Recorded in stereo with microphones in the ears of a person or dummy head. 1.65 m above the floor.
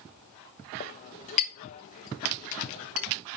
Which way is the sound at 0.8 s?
35° left (ahead or behind).